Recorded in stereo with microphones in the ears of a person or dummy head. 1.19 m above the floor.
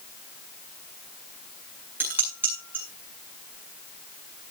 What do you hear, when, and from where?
2.0 s dishes clattering: 10° right (ahead or behind), 8 m